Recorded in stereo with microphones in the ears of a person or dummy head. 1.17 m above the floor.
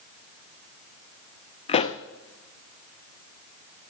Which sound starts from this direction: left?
A pop, at 1.7 s.